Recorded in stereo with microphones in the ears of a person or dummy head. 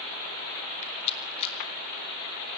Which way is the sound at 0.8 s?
35° left (ahead or behind).